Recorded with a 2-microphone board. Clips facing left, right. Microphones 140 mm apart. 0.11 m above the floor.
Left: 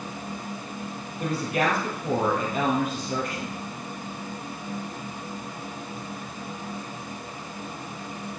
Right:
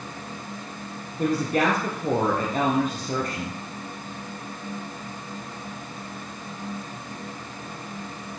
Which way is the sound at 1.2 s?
40° right (ahead or behind).